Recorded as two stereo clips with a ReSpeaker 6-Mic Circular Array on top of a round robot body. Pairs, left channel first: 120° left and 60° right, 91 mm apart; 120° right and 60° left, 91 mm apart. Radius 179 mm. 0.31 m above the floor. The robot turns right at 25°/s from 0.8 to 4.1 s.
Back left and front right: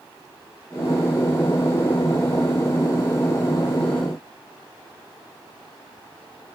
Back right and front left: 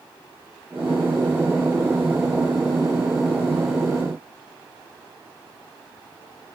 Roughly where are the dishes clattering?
I don't hear dishes clattering.